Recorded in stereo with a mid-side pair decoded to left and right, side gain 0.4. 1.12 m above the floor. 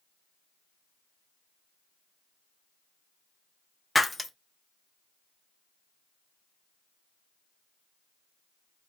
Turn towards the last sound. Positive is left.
turn(degrees=15)